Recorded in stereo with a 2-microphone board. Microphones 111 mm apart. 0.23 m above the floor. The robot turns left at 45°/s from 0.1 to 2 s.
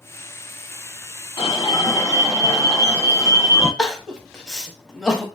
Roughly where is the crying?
Centre.